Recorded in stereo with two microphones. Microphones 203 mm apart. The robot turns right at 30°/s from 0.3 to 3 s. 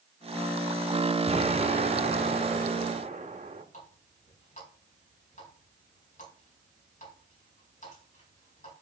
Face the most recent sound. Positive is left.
turn(degrees=40)  # may be behind; listen again after turning